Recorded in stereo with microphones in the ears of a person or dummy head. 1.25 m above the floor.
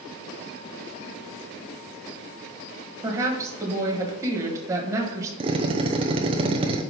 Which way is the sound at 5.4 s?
25° right (ahead or behind).